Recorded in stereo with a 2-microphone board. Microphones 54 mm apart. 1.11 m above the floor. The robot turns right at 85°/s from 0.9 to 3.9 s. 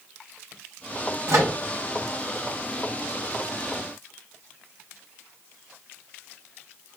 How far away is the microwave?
About 0.9 m.